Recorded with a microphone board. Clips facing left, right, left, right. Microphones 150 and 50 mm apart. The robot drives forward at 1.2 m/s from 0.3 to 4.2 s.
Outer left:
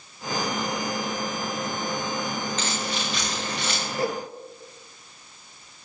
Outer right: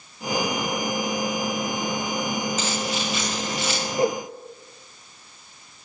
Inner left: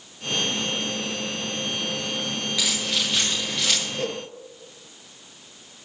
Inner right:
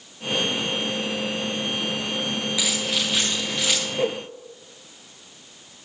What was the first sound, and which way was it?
Keys jangling, 5° right (ahead or behind).